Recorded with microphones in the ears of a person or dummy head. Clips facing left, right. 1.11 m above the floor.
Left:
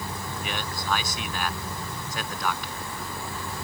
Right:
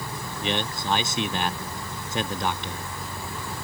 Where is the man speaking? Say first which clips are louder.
Right 7 dB; 20° right (ahead or behind).